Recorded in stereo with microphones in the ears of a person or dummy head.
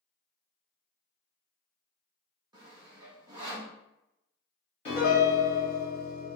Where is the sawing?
25° right (ahead or behind), 0.8 m.